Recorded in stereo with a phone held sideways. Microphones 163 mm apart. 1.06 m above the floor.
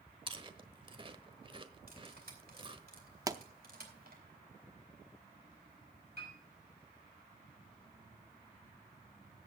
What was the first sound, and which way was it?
Chewing, 30° right (ahead or behind).